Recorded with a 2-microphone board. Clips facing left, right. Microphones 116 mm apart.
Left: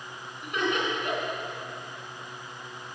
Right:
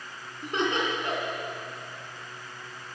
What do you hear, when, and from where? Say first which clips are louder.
0.4 s laughter: right 1 dB; 30° right (ahead or behind), 2 m